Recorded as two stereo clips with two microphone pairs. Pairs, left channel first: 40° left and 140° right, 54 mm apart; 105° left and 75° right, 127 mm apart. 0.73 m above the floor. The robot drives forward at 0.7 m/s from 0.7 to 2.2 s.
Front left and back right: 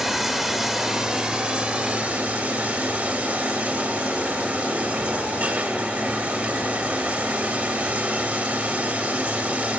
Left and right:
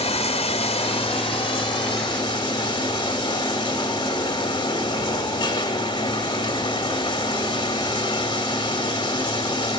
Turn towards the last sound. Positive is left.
turn(degrees=160)